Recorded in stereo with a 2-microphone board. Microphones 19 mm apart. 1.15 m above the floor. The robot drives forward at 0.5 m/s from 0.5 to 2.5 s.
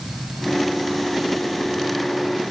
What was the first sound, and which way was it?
Only background noise.